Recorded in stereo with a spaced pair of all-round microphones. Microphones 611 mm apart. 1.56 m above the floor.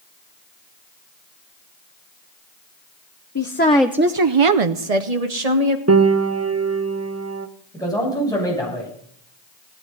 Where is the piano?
25° right (ahead or behind), 0.7 m.